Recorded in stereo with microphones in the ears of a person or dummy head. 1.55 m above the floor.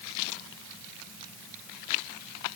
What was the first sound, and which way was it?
Only background noise.